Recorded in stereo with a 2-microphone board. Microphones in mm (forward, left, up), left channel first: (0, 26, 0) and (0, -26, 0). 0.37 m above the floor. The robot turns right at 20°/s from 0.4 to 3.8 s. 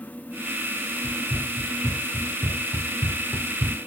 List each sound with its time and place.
1.0 s running footsteps: centre (ahead or behind), 2 m; by 3.8 s 65° right (ahead or behind), 0.8 m